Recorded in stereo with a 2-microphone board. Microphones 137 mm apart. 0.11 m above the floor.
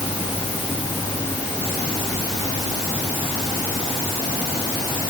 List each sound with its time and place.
Only background noise.